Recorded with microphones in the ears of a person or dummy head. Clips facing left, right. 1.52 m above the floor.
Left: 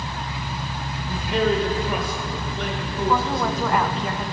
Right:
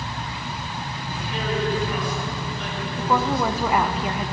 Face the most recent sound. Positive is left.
turn(degrees=0)  # may be behind; listen again after turning